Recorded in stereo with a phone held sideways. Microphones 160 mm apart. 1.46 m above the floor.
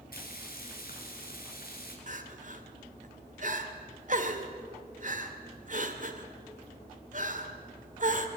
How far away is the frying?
About 3.5 m.